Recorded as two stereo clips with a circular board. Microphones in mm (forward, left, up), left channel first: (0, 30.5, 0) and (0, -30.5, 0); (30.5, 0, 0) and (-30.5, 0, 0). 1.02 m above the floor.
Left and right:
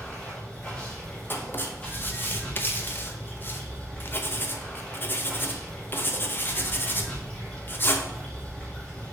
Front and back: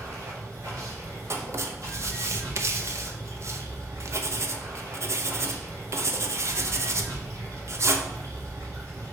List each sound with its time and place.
0.0 s running water: 160° left, 1.9 m
1.3 s writing: 145° left, 0.7 m